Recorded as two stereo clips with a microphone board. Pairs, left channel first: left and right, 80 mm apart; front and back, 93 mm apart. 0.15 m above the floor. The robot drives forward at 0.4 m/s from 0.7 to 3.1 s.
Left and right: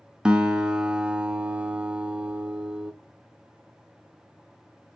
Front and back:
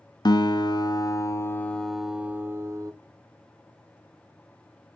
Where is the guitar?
15° right, 0.7 m; by 2.9 s 160° right, 0.6 m.